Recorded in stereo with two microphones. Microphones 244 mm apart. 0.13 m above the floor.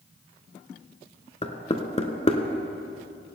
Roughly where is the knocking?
Left.